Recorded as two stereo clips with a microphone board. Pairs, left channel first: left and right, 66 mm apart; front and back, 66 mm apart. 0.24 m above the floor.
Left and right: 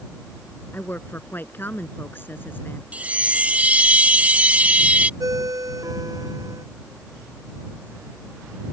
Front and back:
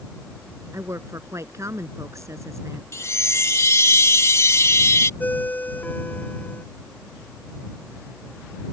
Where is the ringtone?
65° right.